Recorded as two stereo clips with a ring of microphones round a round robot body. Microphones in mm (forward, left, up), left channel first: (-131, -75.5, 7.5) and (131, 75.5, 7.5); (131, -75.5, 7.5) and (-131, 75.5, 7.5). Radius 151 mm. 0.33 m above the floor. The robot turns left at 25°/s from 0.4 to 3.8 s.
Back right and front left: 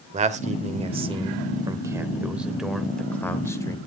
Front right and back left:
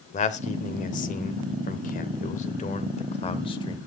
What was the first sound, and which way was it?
A man speaking, straight ahead.